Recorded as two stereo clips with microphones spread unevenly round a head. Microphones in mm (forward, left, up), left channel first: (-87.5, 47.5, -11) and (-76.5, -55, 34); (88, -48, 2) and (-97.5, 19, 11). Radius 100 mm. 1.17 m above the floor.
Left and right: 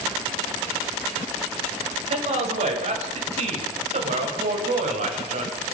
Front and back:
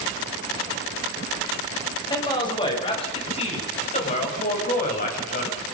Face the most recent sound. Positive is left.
turn(degrees=-65)